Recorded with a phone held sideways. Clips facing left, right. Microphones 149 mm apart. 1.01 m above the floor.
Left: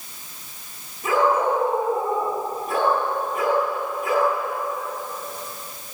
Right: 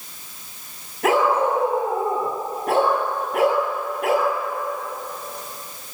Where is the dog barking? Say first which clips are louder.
Right 1 dB; 80° right, 8.5 m.